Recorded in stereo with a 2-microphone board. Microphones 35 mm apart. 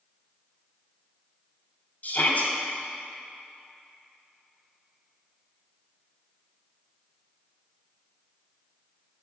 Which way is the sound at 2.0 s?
50° left (ahead or behind).